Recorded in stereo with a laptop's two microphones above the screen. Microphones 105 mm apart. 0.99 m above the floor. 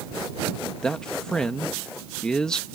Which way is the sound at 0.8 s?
5° left (ahead or behind).